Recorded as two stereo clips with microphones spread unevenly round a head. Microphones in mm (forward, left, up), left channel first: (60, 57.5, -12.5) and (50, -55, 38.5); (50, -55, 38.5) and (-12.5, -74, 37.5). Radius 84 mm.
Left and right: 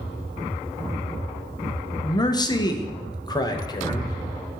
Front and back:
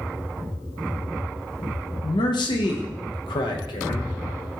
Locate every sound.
2.0 s a man speaking: 30° left, 0.8 m